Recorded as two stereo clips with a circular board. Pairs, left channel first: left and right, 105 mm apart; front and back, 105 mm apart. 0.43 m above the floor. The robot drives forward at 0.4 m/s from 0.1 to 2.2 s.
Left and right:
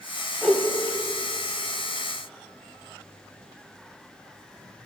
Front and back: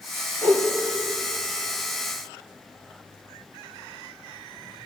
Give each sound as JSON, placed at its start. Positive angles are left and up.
{"t": 0.4, "sound": "a whoosh", "azimuth_deg": 180, "distance_m": 1.4}